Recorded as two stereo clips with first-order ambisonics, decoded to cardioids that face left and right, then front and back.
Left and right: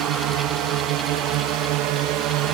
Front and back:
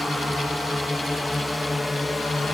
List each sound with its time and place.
0.0 s a drone: 90° right; by 2.5 s 80° right